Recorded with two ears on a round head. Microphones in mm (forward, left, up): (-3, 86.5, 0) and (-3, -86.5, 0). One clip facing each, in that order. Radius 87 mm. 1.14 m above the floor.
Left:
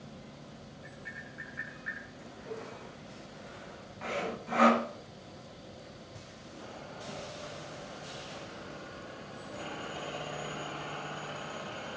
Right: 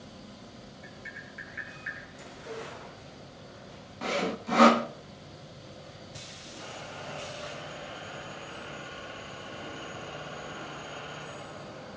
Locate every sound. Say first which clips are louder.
0.8 s tapping: right 1 dB; 25° right (ahead or behind), 6 m
2.5 s a cowbell: right 2 dB; 40° right (ahead or behind), 5 m
4.0 s sawing: right 5 dB; 50° right (ahead or behind), 0.5 m